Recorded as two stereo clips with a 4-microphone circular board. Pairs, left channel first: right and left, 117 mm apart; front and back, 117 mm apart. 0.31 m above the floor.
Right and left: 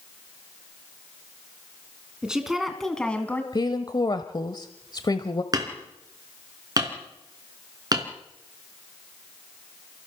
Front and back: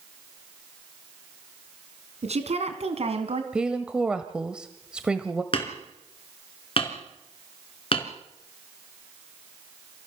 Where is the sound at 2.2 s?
170° left, 3 m; by 3.4 s 160° right, 2 m.